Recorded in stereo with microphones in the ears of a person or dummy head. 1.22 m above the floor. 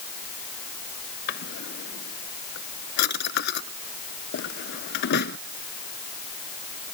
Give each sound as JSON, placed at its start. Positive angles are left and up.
{"t": 1.3, "sound": "a drawer", "side_deg": 60}